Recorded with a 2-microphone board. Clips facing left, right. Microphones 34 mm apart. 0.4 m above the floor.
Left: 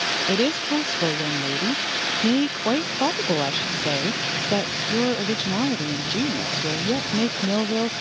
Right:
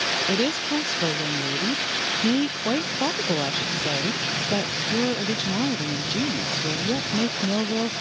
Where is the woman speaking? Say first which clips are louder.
Left 2 dB; 15° left (ahead or behind).